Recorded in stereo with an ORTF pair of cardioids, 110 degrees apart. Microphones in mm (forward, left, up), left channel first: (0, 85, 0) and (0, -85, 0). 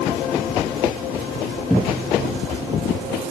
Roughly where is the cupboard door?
Ahead.